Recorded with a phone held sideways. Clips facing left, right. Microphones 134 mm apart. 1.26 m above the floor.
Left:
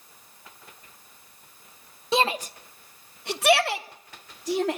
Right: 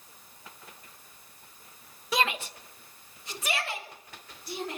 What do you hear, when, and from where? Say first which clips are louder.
2.1 s a shout: left 5 dB; 25° left (ahead or behind), 1.0 m; by 4.8 s 90° left, 2.5 m